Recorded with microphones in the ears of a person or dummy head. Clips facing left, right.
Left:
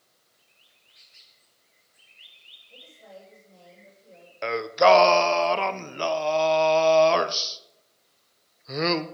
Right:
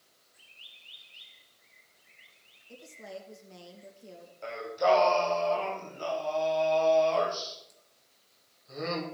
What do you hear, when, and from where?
2.7 s a woman speaking: 85° right, 2.5 m
4.4 s singing: 85° left, 0.6 m